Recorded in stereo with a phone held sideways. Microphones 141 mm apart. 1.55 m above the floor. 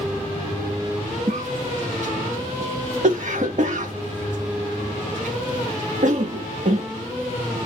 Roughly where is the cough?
Right.